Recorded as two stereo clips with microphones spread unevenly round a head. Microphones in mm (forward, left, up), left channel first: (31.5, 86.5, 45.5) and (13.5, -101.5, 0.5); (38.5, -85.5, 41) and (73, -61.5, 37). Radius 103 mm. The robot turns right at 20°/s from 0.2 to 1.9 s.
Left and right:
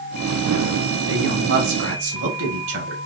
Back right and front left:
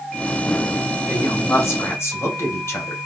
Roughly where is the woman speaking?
Behind right.